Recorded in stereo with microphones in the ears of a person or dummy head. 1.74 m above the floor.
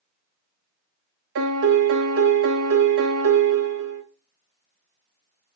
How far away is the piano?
About 0.6 m.